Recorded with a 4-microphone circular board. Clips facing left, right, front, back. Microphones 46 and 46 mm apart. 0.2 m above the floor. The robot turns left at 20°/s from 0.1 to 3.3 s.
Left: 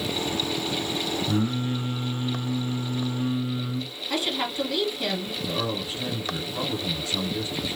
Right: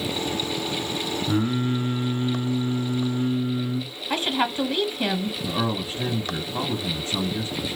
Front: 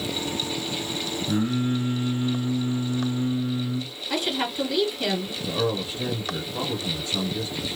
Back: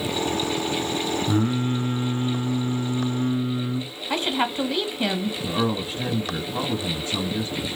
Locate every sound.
1.3 s singing: 145° right, 1.4 m; by 3.9 s 175° left, 1.4 m
4.1 s a woman speaking: 140° right, 1.6 m
5.4 s a man speaking: 140° right, 1.8 m